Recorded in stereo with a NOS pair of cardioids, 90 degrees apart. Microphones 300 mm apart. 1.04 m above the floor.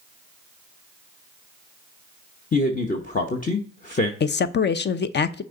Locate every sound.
2.5 s a man speaking: 25° left, 0.9 m
4.2 s a man speaking: 35° left, 0.6 m